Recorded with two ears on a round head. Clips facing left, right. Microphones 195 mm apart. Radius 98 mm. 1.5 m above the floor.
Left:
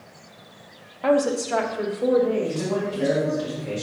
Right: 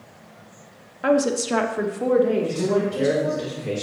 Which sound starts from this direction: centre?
A woman speaking, at 1.0 s.